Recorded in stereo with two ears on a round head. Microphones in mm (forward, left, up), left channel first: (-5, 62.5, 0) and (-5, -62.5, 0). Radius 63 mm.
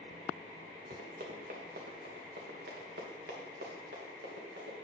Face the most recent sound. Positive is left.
turn(degrees=-80)